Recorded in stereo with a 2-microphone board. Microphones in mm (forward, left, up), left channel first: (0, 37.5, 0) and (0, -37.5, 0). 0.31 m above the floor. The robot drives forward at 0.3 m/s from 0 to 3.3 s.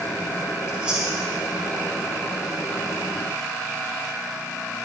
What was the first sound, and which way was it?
Chewing, 15° right (ahead or behind).